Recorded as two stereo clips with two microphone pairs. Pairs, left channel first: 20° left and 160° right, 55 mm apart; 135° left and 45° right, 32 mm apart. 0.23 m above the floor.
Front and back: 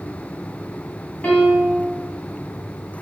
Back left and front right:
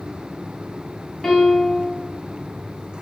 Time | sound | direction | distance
1.2 | a piano | 60° left | 1.8 m